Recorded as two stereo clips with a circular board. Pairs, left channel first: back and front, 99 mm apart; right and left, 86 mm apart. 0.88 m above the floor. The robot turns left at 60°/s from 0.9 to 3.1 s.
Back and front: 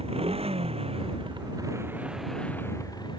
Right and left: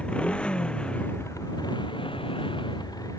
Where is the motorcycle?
10° right; by 3.2 s 135° right.